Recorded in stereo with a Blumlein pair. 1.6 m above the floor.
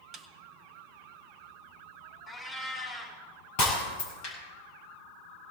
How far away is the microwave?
No microwave in this recording.